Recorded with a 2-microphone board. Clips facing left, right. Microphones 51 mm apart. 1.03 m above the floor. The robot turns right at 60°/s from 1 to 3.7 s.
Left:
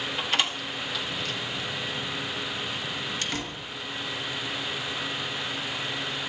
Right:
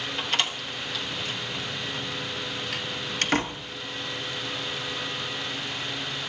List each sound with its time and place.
0.2 s a door slam: 5° left (ahead or behind), 0.9 m; by 3.6 s 30° right (ahead or behind), 0.9 m